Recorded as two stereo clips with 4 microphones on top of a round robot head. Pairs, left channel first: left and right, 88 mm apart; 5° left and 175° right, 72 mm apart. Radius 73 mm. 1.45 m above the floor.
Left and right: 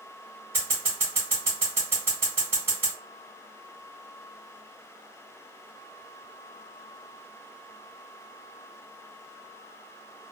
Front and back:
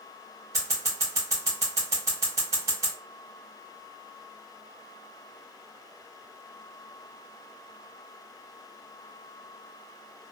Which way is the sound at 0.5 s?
150° right.